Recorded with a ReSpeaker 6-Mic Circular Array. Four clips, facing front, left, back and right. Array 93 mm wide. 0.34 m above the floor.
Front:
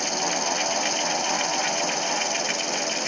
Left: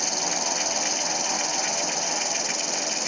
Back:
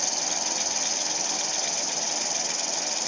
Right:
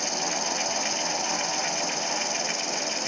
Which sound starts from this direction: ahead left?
An insect, at 0.0 s.